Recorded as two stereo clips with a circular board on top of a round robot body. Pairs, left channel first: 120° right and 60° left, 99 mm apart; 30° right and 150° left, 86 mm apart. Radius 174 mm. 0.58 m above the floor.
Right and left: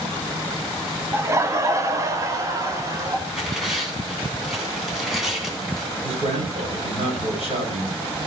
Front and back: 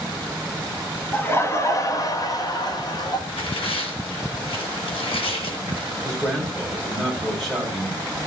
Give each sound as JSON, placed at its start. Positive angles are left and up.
{"t": 1.1, "sound": "laughter", "azimuth_deg": 20, "distance_m": 1.3}
{"t": 3.3, "sound": "tearing paper", "azimuth_deg": -30, "distance_m": 2.5}
{"t": 6.0, "sound": "a man speaking", "azimuth_deg": 55, "distance_m": 4.5}